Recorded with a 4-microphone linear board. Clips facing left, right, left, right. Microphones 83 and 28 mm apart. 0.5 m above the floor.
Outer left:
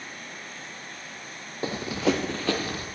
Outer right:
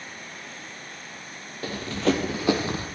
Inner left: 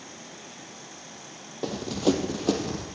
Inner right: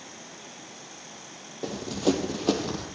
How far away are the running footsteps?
About 1.1 m.